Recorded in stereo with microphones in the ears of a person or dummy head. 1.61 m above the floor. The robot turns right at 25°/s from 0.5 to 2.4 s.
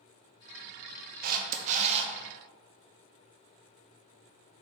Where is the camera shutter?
55° right (ahead or behind), 1.0 m; by 2.1 s 35° right (ahead or behind), 1.0 m.